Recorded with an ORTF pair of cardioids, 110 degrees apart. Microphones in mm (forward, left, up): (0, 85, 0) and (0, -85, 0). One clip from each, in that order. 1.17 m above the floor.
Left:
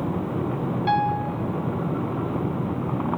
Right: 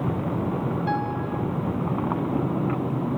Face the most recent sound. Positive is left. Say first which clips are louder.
# left 8 dB
turn(degrees=35)